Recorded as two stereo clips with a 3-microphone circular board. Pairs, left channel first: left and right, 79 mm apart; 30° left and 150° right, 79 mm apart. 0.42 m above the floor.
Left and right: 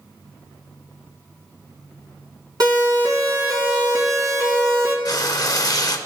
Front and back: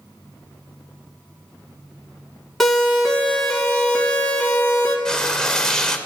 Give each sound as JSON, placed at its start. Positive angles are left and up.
{"t": 2.6, "sound": "a siren", "azimuth_deg": -60, "distance_m": 3.5}
{"t": 5.0, "sound": "frying", "azimuth_deg": 110, "distance_m": 0.9}